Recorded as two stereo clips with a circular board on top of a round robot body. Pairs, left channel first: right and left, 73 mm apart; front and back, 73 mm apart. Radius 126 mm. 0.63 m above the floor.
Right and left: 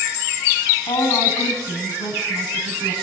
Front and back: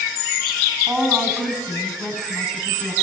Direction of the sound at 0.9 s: 105° right.